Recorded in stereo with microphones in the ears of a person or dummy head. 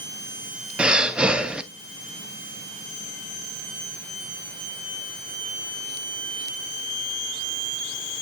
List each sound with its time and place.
0.8 s breathing: 5° right (ahead or behind), 0.6 m